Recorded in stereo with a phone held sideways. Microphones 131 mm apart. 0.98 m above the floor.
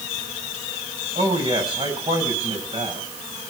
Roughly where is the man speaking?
Right.